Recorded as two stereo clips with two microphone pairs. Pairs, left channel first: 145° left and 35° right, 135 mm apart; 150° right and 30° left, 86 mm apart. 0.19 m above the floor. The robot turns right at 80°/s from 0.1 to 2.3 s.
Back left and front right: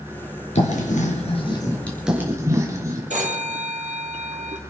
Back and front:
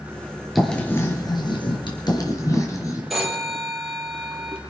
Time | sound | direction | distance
0.6 | writing | 120° left | 4 m
3.1 | a phone ringing | 55° right | 4 m